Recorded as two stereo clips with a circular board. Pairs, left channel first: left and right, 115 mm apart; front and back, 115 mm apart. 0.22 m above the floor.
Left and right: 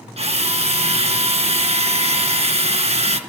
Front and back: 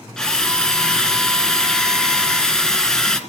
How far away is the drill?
About 2 m.